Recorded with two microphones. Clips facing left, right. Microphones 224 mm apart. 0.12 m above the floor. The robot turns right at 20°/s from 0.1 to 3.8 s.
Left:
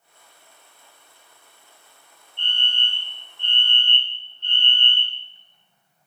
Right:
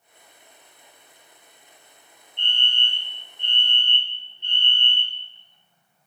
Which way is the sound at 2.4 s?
20° right (ahead or behind).